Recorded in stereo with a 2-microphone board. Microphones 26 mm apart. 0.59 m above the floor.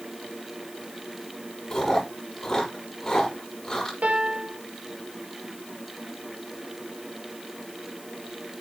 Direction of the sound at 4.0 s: 85° right.